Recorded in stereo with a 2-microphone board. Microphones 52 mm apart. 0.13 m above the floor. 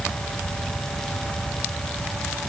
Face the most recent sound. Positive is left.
No sound to turn to.